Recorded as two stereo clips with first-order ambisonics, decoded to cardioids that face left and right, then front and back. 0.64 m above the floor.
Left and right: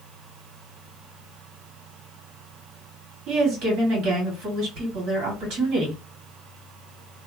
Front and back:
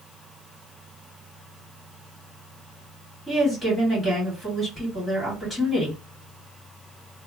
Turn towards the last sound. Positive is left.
turn(degrees=-90)